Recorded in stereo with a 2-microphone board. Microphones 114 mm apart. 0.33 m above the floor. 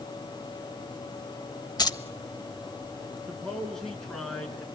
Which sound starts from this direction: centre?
A man speaking, at 3.3 s.